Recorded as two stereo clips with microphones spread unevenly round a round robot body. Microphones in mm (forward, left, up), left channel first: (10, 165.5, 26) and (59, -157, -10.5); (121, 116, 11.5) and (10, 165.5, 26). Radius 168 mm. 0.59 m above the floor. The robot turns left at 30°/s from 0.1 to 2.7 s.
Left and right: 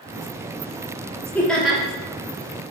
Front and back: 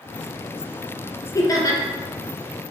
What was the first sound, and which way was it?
Laughter, 10° left.